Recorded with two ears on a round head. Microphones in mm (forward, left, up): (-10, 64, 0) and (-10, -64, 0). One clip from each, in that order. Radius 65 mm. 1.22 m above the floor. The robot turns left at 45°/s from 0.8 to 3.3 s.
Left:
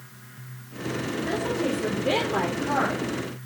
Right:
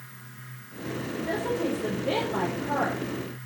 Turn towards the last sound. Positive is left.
turn(degrees=65)